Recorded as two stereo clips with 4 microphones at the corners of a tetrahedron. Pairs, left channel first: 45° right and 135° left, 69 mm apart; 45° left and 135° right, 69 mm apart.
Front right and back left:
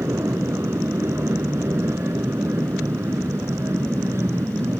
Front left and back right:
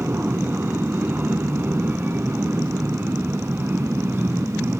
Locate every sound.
0.0 s an aircraft: 170° left